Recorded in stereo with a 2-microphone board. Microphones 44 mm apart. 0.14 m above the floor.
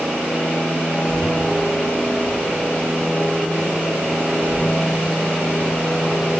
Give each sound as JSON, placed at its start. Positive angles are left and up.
{"t": 0.9, "sound": "a child speaking", "side_deg": 10, "distance_m": 5.5}